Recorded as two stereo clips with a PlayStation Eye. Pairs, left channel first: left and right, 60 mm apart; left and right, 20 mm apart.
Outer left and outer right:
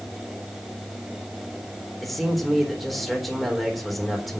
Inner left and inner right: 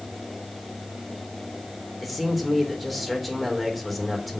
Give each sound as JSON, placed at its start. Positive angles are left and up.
{"t": 2.0, "sound": "a man speaking", "side_deg": 0, "distance_m": 3.5}